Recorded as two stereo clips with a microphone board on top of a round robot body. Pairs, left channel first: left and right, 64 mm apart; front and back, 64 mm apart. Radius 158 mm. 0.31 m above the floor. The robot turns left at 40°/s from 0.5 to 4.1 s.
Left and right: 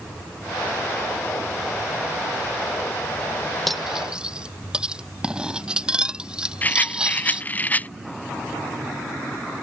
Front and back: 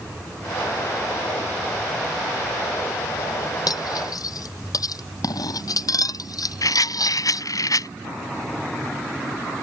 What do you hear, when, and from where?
3.7 s cutlery clinking: straight ahead; by 7.5 s 15° right
6.6 s a rattle: 25° left